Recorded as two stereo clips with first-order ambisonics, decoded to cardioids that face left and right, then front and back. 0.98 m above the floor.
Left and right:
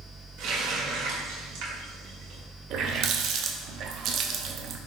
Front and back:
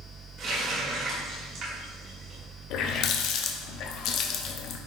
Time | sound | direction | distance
0.4 | a running tap | 130° right | 2 m
2.7 | a running tap | 40° right | 0.7 m